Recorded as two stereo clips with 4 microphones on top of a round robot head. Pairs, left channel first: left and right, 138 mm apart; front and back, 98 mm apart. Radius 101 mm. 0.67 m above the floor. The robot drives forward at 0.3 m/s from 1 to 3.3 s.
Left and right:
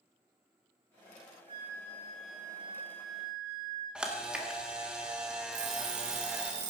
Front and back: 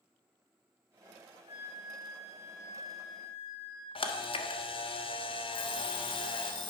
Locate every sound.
1.5 s a flute: 20° right, 6.5 m
4.0 s a camera shutter: 5° right, 1.9 m
5.5 s an alarm clock: 45° right, 2.5 m